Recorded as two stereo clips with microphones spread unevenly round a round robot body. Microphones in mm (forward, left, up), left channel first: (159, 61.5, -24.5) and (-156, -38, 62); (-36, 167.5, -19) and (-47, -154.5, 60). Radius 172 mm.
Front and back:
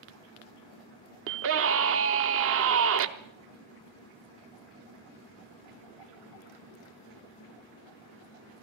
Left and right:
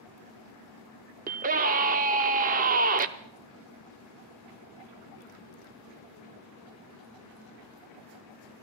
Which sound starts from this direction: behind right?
A scream, at 1.3 s.